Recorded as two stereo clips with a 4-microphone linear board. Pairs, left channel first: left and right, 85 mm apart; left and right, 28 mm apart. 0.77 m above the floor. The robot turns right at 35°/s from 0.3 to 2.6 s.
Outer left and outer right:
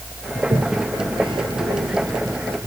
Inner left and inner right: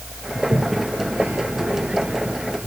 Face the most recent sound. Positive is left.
turn(degrees=-40)  # may be behind; listen again after turning